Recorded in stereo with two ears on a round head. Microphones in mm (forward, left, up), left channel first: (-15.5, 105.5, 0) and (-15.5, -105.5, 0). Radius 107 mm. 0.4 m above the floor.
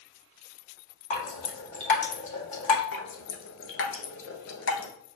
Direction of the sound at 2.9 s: 60° left (ahead or behind).